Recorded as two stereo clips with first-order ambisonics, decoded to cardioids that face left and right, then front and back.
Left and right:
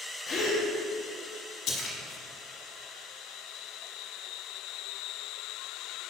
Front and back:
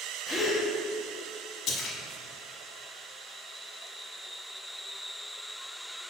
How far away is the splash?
About 1.3 m.